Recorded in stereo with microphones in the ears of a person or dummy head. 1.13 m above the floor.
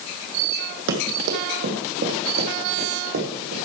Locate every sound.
0.9 s running footsteps: 60° right (ahead or behind), 2 m; by 3.5 s 70° right (ahead or behind), 3.5 m